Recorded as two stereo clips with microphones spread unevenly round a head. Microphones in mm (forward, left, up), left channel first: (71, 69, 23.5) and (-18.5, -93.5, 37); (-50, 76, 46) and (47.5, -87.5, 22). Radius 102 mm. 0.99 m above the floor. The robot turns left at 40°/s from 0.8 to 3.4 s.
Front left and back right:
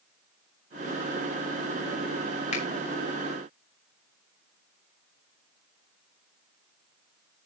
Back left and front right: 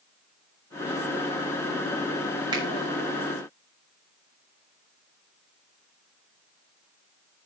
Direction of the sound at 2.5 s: 10° left.